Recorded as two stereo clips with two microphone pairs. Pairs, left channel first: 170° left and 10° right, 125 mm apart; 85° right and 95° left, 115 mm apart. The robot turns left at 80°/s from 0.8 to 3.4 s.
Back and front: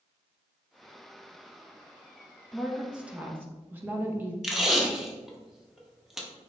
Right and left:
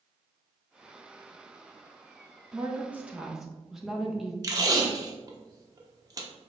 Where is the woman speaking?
90° left, 0.6 m; by 4.3 s 20° left, 0.6 m.